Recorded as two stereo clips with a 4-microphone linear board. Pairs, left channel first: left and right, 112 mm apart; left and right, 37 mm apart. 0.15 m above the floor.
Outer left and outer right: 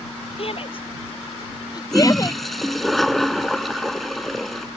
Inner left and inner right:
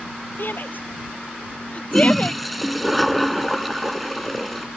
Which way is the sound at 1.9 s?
Centre (ahead or behind).